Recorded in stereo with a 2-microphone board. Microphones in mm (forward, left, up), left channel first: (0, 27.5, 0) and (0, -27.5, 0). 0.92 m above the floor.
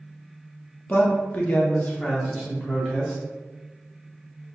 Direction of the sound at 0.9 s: 25° left (ahead or behind).